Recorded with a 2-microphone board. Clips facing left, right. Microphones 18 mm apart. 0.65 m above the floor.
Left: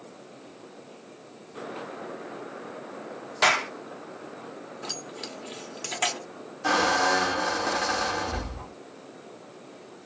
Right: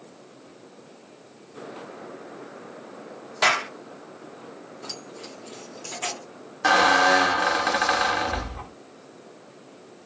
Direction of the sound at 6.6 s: 45° right (ahead or behind).